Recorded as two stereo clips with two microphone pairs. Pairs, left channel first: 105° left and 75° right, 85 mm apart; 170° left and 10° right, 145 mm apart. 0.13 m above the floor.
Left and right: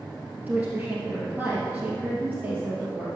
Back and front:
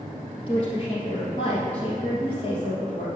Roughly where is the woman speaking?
Behind right.